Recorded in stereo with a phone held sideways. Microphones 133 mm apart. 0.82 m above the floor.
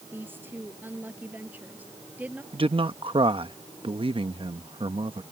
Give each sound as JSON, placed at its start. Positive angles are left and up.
{"t": 0.1, "sound": "a woman speaking", "side_deg": -15}
{"t": 2.5, "sound": "a man speaking", "side_deg": -45}